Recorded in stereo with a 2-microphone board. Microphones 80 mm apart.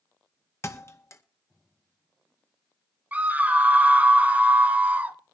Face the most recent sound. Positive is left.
turn(degrees=-20)  # may be behind; listen again after turning